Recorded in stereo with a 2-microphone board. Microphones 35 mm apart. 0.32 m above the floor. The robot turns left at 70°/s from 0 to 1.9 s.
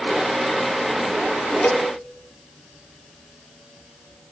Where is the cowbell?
65° left (ahead or behind), 1.4 m; by 1.9 s 55° left (ahead or behind), 1.4 m.